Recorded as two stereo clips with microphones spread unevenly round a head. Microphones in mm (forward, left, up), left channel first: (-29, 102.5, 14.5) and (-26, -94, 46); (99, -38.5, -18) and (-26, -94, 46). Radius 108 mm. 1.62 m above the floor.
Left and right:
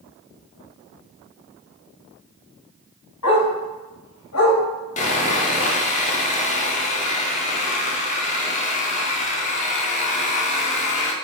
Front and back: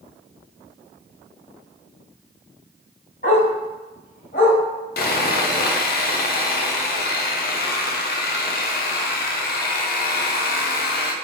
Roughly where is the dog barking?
Left.